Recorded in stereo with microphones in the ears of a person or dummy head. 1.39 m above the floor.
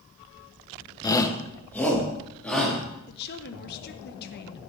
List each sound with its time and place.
1.0 s a shout: 20° left (ahead or behind), 0.9 m; by 2.8 s 5° left (ahead or behind), 3.5 m
3.1 s a woman speaking: 55° left (ahead or behind), 1.4 m